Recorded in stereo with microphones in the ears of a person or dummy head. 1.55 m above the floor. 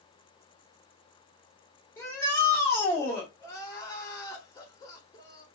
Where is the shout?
20° left (ahead or behind), 2 m.